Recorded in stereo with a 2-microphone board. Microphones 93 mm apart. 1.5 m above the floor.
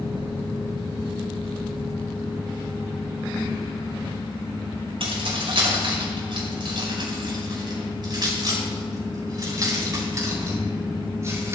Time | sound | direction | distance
5.0 | keys jangling | 75° right (ahead or behind) | 6 m